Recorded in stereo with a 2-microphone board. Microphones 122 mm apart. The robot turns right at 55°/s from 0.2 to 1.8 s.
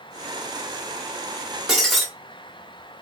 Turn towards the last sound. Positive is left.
turn(degrees=0)  # may be behind; listen again after turning